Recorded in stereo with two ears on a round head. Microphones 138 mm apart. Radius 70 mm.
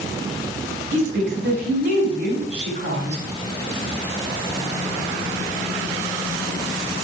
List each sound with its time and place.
0.9 s a woman speaking: 50° right (ahead or behind), 4 m